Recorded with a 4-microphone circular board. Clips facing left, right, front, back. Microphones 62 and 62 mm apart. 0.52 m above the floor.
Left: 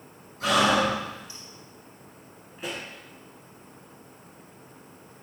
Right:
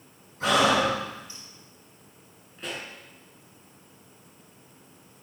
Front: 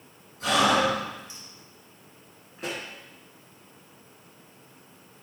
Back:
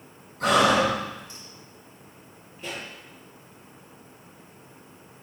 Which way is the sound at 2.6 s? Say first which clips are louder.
Left 1 dB, front 2 dB; 5° left.